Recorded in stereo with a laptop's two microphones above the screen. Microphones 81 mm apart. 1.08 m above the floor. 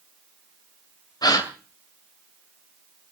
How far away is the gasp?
About 2 m.